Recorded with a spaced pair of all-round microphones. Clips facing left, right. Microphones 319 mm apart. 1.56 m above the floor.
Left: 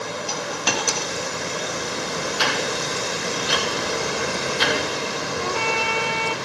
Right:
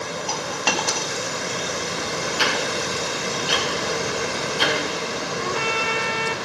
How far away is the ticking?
About 1.8 m.